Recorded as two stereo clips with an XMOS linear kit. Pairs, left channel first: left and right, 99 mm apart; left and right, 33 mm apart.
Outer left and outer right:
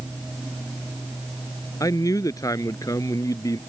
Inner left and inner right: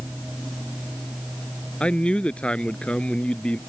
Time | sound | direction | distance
1.8 | a man speaking | 35° left (ahead or behind) | ?